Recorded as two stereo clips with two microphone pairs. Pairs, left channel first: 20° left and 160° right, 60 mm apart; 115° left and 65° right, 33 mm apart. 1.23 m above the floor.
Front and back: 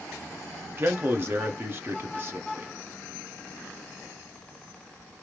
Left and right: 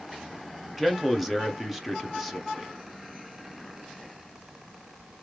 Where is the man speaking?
150° right, 0.7 m.